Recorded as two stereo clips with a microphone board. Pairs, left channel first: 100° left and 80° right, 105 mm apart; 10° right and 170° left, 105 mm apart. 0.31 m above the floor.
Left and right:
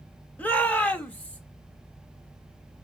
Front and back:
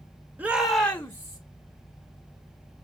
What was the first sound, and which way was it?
A shout, 135° left.